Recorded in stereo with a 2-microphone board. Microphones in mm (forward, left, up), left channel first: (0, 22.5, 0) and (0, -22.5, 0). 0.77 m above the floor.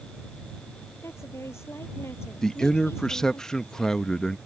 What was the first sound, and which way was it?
A woman speaking, 85° left.